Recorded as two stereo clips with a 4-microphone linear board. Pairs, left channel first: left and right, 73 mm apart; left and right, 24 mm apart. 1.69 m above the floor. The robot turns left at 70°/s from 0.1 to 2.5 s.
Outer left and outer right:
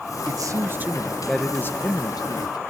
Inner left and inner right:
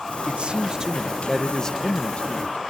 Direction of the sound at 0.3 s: 115° right.